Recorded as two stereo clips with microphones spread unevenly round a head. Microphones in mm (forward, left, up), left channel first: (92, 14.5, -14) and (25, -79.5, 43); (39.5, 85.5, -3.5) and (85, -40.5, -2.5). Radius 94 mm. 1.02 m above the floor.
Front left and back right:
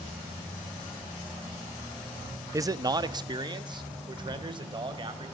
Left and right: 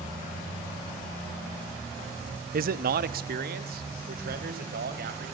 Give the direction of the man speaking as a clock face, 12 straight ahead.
2 o'clock.